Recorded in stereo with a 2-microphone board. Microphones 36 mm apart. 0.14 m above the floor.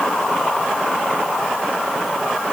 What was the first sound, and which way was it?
Only background noise.